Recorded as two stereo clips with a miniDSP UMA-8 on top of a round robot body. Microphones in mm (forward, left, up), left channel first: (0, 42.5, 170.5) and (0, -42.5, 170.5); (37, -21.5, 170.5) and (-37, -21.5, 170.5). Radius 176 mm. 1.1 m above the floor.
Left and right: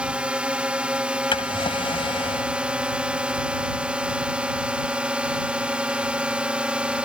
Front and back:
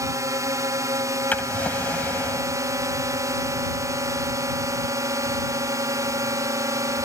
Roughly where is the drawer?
Left.